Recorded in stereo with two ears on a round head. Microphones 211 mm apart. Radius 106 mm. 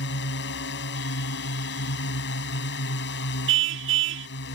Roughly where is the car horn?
Right.